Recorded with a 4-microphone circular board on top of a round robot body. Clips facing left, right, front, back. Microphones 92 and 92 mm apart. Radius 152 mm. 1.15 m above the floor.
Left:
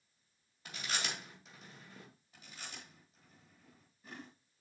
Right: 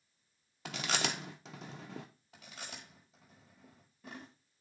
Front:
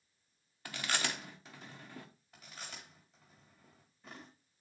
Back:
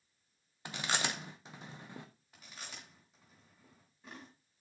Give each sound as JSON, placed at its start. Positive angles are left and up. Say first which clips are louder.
{"t": 0.7, "sound": "chewing", "louder": "right 5 dB, back 1 dB", "azimuth_deg": -110, "distance_m": 0.7}
{"t": 2.3, "sound": "chewing", "louder": "right 2 dB, front 1 dB", "azimuth_deg": -90, "distance_m": 1.3}